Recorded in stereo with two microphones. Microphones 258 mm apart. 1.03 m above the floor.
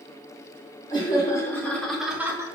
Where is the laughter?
20° left (ahead or behind), 2.5 m; by 2.5 s 10° right (ahead or behind), 1.6 m.